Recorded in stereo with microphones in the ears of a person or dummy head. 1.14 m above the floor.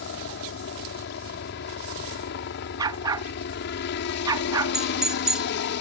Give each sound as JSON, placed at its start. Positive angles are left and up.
{"t": 0.0, "sound": "a helicopter", "side_deg": 55}
{"t": 2.8, "sound": "a dog barking", "side_deg": -15}
{"t": 4.7, "sound": "a doorbell", "side_deg": -5}